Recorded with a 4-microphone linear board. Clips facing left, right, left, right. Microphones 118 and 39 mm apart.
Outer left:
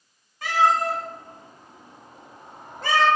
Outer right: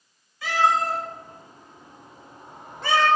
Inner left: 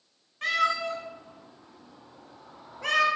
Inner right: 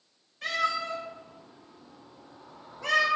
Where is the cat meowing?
55° left (ahead or behind), 1.6 m; by 3.1 s 40° left (ahead or behind), 1.0 m.